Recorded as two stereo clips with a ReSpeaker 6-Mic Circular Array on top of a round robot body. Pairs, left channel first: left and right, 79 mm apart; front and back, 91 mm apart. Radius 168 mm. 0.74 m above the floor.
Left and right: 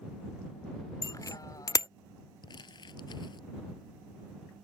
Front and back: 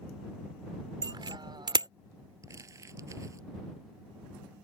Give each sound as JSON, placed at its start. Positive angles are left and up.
{"t": 1.0, "sound": "a bicycle bell", "azimuth_deg": 135}
{"t": 2.4, "sound": "crumpling", "azimuth_deg": 120}